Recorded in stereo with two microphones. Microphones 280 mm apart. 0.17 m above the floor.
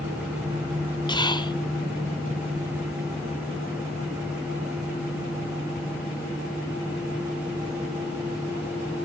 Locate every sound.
1.1 s whispering: 15° left (ahead or behind), 1.1 m